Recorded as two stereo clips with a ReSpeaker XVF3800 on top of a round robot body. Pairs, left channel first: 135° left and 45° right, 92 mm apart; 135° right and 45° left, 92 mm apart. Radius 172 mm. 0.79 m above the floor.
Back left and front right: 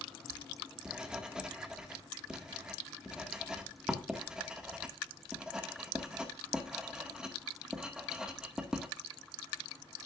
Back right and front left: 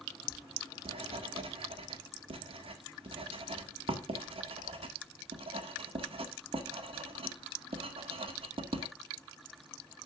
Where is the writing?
35° left, 1.9 m.